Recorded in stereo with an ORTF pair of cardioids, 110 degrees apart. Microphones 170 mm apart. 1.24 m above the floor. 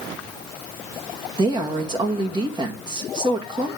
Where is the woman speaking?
25° right, 2 m.